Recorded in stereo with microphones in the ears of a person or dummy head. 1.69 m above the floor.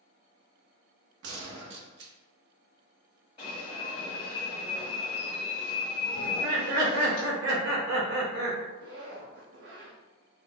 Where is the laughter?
55° right (ahead or behind), 1.6 m.